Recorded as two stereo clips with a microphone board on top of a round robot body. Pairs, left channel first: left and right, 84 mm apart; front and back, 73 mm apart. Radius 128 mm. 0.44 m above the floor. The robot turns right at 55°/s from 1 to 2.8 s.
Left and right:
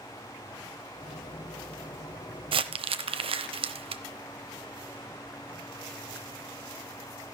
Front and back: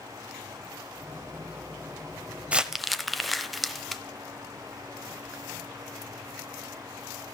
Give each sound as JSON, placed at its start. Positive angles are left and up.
{"t": 2.5, "sound": "crumpling", "azimuth_deg": -105, "distance_m": 0.7}